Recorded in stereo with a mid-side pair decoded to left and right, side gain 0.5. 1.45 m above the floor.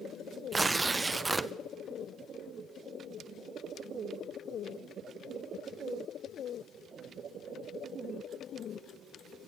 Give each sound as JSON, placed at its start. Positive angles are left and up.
{"t": 0.5, "sound": "tearing paper", "azimuth_deg": -25, "distance_m": 0.8}